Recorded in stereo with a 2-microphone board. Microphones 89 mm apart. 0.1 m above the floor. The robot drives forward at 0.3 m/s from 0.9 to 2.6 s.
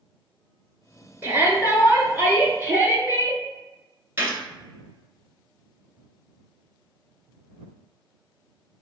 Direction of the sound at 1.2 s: 25° right (ahead or behind).